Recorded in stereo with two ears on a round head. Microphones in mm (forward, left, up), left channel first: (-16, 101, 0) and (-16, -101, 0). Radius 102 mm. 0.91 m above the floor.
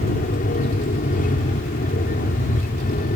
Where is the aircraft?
35° left (ahead or behind).